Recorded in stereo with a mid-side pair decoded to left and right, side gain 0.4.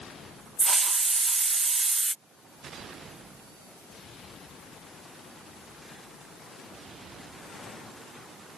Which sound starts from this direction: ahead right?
A hiss, at 0.6 s.